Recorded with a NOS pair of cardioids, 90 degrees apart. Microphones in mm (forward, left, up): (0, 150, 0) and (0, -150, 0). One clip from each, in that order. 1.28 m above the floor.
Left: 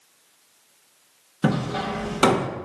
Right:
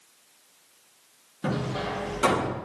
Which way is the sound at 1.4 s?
65° left.